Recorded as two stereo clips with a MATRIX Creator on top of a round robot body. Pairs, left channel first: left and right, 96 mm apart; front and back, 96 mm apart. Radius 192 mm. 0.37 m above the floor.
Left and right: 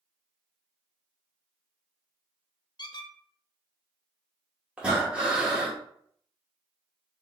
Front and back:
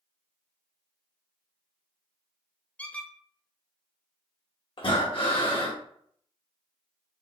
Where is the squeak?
70° left, 1.0 m.